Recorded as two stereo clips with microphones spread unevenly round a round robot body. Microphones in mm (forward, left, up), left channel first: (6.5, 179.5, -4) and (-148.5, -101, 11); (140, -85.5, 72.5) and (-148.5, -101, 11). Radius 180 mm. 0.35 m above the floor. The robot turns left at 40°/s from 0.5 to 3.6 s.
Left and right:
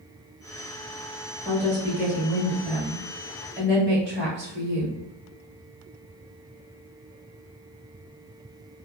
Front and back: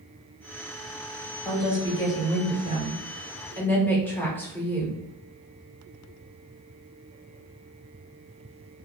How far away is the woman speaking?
About 1.2 m.